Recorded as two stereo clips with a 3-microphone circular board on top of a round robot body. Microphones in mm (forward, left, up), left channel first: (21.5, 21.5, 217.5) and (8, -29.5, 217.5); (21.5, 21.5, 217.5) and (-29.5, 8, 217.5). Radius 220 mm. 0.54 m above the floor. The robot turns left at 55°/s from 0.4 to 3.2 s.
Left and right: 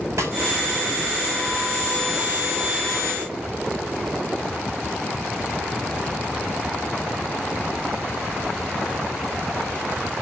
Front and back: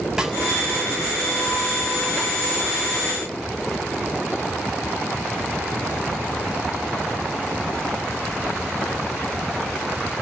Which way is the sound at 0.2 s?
85° right.